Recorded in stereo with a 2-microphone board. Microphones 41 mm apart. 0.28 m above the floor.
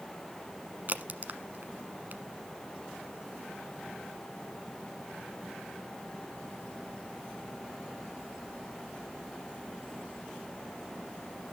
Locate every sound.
0.9 s a crack: 45° right (ahead or behind), 1.1 m